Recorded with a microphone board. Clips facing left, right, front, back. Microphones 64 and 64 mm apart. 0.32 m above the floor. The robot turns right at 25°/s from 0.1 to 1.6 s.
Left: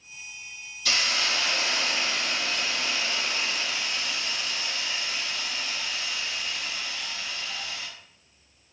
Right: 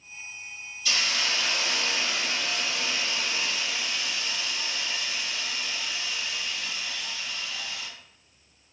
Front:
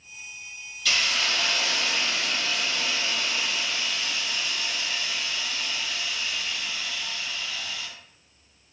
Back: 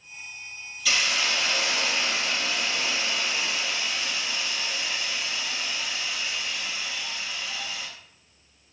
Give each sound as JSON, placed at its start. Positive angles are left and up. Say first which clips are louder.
{"t": 0.8, "sound": "a hiss", "louder": "left 1 dB, even", "azimuth_deg": 95, "distance_m": 0.5}